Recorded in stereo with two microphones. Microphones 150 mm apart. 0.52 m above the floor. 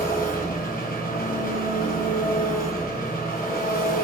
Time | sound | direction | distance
0.0 | an engine running | 80° left | 1.8 m